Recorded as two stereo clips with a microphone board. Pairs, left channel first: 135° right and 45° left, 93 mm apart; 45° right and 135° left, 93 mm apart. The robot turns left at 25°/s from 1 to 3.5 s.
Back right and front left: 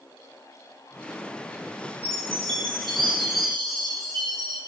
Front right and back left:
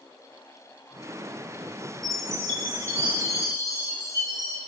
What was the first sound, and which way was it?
A chime, 45° left.